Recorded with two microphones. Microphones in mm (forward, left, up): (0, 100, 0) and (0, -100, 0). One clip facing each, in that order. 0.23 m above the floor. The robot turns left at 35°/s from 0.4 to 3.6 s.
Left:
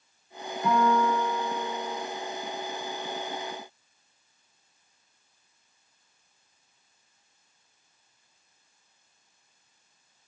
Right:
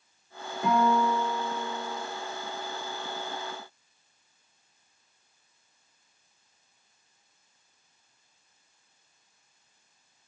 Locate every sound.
0.6 s a guitar: 25° right, 3.5 m; by 2.0 s 75° right, 3.5 m